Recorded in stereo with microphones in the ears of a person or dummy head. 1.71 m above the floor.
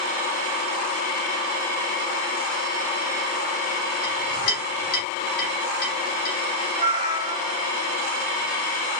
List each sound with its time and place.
4.0 s a clink: 55° left (ahead or behind), 2.5 m
6.8 s a cat meowing: 25° right (ahead or behind), 1.8 m